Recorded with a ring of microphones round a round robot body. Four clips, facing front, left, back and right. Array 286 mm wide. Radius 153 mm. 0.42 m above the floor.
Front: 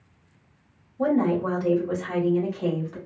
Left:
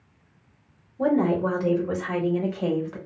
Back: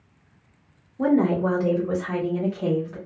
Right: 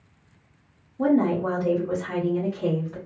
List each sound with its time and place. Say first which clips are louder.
1.0 s a woman speaking: right 1 dB, back 2 dB; 175° right, 1.4 m; by 3.0 s 85° left, 1.6 m